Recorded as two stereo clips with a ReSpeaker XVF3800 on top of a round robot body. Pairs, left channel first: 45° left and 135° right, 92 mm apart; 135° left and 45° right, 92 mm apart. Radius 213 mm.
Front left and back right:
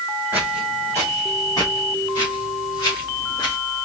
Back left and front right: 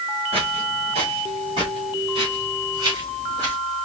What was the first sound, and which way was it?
Footsteps, 60° right.